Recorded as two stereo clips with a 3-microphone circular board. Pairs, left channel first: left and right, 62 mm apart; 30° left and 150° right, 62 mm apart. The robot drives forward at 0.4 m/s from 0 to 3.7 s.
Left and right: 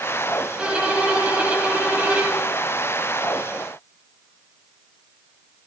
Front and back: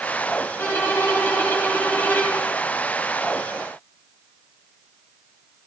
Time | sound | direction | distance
0.6 | a violin | 25° right | 2.5 m